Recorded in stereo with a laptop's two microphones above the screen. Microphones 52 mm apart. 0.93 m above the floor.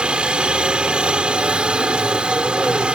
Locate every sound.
0.0 s a helicopter: 20° right (ahead or behind)